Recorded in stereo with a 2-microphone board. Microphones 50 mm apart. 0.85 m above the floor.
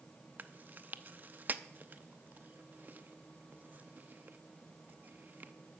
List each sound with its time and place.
0.4 s chewing: 40° right (ahead or behind), 0.7 m